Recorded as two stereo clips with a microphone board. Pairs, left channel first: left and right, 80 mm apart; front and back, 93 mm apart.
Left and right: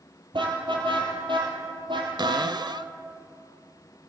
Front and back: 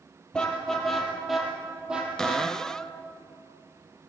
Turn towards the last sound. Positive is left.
turn(degrees=-85)